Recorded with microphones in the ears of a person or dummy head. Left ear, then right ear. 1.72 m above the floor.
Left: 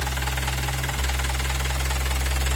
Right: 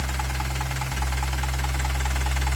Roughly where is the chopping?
No chopping in this recording.